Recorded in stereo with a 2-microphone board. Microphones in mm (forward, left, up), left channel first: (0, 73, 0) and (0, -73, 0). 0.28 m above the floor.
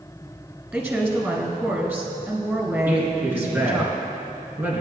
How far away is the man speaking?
About 3 m.